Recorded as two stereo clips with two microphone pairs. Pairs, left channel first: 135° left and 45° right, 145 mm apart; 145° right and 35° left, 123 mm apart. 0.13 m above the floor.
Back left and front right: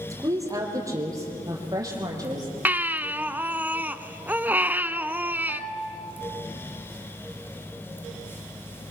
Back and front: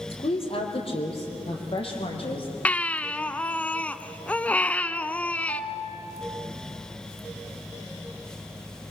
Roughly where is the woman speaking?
Right.